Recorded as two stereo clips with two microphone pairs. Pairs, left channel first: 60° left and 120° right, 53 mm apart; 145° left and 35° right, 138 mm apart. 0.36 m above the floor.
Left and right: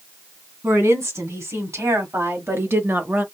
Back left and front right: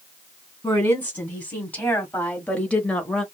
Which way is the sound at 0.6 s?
135° right.